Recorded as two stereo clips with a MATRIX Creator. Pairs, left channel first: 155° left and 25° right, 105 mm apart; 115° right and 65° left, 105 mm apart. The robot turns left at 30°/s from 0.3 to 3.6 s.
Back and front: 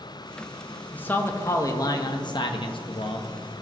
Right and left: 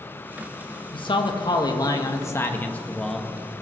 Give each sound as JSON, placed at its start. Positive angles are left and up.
{"t": 0.9, "sound": "a man speaking", "azimuth_deg": -130, "distance_m": 1.1}